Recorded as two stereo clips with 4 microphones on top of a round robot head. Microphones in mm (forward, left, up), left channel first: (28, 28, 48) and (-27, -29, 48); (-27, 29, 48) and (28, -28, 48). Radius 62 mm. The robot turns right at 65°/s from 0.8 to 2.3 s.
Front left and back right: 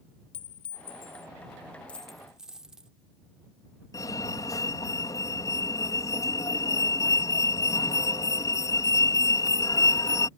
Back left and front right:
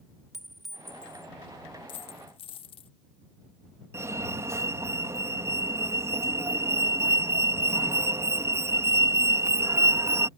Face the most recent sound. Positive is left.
turn(degrees=5)